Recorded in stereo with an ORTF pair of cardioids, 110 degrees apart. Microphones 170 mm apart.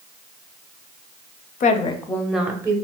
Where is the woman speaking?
50° left, 0.5 m; by 2.8 s 20° right, 0.7 m.